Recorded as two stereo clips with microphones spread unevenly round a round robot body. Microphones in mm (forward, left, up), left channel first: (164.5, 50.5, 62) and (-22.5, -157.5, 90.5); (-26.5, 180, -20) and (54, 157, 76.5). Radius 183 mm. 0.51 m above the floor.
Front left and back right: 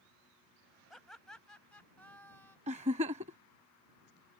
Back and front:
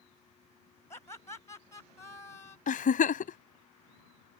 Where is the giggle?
160° left.